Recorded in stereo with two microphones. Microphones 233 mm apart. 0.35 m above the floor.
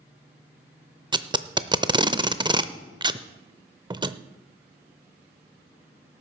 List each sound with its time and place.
1.1 s tape being pulled: 20° right (ahead or behind), 0.5 m